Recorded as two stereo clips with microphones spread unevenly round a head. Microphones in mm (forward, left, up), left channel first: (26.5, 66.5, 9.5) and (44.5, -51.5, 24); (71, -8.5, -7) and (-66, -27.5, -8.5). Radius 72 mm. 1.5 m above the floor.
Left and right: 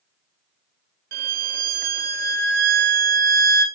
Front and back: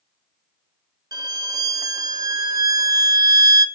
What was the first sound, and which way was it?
A violin, 110° right.